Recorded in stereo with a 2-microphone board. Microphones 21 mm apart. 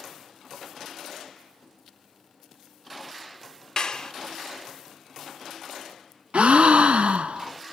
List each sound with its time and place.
3.8 s a clap: 35° left (ahead or behind), 0.8 m
6.3 s a gasp: 80° right, 0.5 m